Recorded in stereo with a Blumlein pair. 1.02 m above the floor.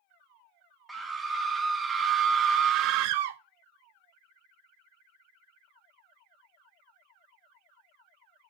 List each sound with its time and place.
0.9 s a scream: 10° right, 1.7 m; by 3.4 s 60° right, 0.5 m